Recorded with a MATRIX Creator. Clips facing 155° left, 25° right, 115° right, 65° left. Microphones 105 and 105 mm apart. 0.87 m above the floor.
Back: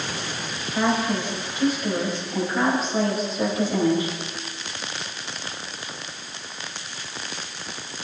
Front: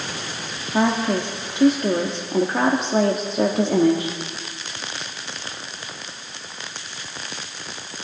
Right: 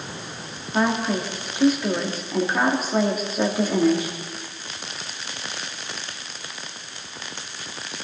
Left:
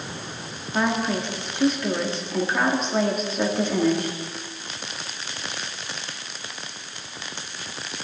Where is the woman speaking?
30° right, 1.6 m.